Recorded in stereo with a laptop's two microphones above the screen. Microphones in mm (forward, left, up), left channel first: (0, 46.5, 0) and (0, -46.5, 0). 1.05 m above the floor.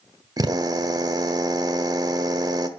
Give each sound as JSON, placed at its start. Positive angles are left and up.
{"t": 0.4, "sound": "a drill", "side_deg": -45, "distance_m": 1.4}